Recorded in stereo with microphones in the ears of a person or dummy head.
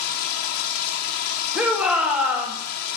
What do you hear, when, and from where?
0.0 s running water: 60° left (ahead or behind), 1.4 m
1.6 s a shout: centre (ahead or behind), 1.4 m